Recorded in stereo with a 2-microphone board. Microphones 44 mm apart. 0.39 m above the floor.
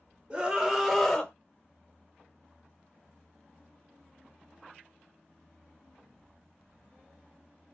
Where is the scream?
25° right (ahead or behind), 1.3 m; by 1.3 s 10° left (ahead or behind), 1.2 m.